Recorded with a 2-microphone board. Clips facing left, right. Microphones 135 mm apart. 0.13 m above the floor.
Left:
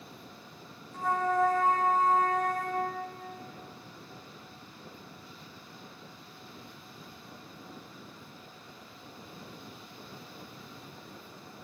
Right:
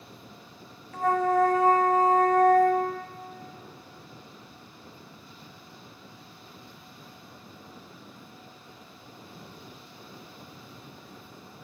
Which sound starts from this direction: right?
A flute, at 0.9 s.